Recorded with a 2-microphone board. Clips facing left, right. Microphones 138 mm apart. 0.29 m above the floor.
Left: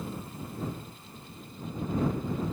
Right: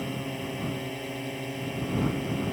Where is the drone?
75° right (ahead or behind); by 2.5 s 70° right (ahead or behind).